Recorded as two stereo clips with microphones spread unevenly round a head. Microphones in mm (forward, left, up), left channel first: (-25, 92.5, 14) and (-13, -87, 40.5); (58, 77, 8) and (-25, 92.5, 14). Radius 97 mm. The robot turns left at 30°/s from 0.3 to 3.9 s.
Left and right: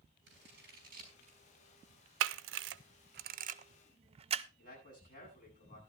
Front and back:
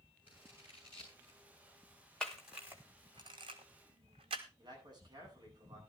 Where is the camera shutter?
95° right, 0.7 m; by 4.5 s 145° right, 0.7 m.